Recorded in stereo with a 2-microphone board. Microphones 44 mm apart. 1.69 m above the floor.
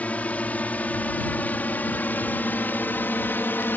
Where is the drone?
35° left (ahead or behind); by 3.8 s 55° left (ahead or behind).